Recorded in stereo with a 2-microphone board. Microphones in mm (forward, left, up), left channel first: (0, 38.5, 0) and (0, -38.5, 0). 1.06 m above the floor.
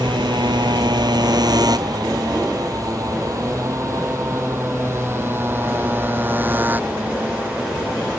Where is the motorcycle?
75° right (ahead or behind); by 8.2 s 20° right (ahead or behind).